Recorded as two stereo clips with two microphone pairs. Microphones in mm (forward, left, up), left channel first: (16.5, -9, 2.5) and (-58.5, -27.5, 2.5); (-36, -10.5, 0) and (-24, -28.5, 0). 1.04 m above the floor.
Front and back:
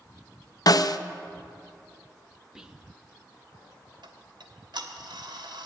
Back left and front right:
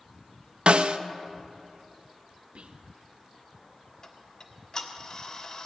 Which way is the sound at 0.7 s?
25° right.